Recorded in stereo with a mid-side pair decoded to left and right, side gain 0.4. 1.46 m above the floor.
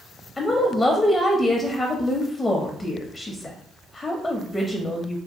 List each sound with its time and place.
0.4 s a woman speaking: 20° left, 0.6 m